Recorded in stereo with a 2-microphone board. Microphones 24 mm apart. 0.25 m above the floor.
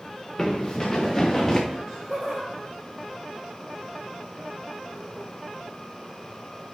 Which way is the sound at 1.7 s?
10° right (ahead or behind).